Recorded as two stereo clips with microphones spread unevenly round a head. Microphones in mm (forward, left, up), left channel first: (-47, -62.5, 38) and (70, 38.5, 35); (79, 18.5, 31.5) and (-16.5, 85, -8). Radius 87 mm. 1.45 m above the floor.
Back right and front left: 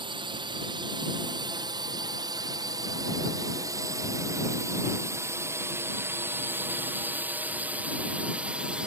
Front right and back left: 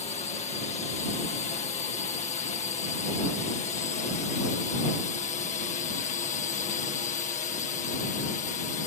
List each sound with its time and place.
0.0 s a drone: 10° right; by 8.9 s 40° right